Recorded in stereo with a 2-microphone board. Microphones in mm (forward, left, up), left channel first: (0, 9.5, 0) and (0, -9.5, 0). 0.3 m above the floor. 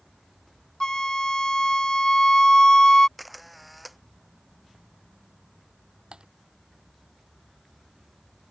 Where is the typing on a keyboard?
60° right (ahead or behind).